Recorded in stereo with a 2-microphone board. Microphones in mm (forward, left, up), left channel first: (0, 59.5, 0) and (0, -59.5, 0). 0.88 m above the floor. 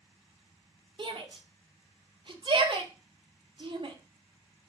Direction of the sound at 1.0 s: 45° right (ahead or behind).